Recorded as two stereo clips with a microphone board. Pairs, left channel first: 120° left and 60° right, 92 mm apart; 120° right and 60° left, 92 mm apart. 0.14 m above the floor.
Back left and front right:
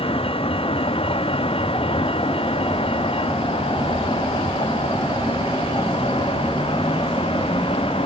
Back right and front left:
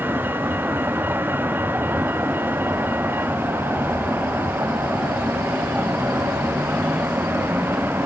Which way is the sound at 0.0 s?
130° left.